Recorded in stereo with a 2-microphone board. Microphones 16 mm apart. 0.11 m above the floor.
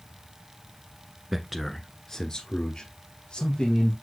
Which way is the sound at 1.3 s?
15° right (ahead or behind).